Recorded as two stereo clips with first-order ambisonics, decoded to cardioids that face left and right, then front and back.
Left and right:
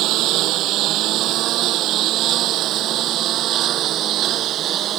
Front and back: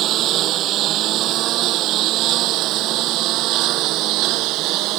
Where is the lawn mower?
130° right; by 5.0 s 145° right.